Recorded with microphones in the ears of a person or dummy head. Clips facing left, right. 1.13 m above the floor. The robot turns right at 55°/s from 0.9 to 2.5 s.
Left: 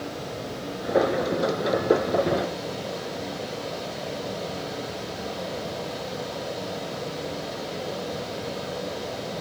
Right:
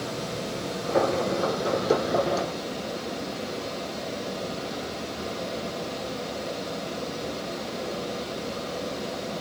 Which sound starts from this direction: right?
Running water, at 0.0 s.